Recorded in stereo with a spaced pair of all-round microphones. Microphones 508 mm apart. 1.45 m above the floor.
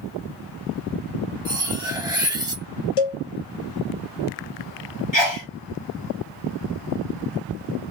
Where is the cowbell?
80° left, 0.9 m.